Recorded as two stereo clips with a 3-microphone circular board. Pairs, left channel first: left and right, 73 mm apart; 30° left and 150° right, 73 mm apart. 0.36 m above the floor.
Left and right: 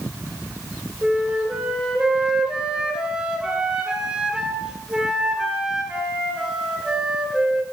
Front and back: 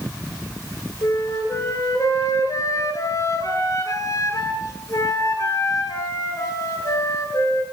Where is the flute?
10° right, 2 m.